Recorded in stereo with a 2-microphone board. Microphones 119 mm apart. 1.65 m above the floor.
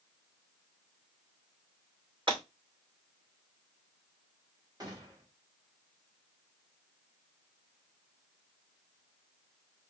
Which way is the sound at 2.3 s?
45° right (ahead or behind).